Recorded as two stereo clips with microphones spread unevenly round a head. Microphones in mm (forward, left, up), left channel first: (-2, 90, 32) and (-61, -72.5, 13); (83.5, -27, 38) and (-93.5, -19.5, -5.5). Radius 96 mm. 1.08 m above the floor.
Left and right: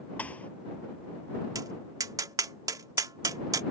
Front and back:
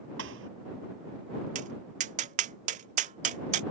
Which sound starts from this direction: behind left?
A thud, at 0.2 s.